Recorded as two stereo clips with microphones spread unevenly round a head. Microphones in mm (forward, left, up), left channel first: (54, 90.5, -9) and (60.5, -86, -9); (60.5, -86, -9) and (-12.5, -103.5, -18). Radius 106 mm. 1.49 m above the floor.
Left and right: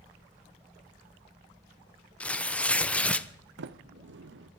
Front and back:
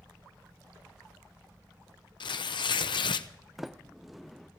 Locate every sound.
2.2 s tearing paper: 10° left, 0.8 m
3.6 s a sliding door: 80° right, 0.7 m